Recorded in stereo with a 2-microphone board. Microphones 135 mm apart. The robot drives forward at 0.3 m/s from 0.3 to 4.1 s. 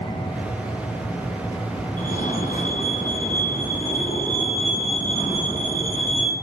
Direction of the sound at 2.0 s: 75° left (ahead or behind).